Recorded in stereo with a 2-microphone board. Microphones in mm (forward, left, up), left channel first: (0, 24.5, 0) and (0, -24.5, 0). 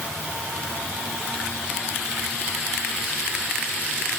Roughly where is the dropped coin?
No dropped coin in this recording.